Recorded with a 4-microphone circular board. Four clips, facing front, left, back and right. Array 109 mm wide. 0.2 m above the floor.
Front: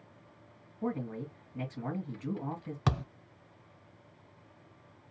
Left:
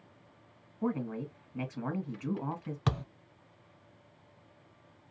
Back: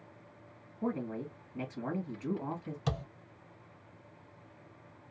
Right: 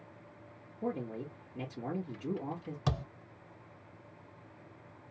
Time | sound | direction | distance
0.8 | a man speaking | 95° left | 1.7 m
2.9 | a thud | 25° left | 0.5 m